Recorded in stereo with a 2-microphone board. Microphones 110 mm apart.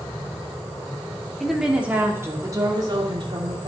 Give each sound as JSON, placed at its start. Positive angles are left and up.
{"t": 1.4, "sound": "a woman speaking", "side_deg": 0, "distance_m": 2.5}